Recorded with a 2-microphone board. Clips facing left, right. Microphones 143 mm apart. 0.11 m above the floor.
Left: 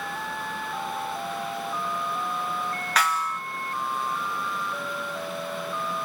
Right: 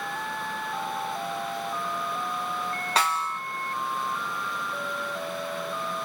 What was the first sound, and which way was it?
A snare drum, 30° right (ahead or behind).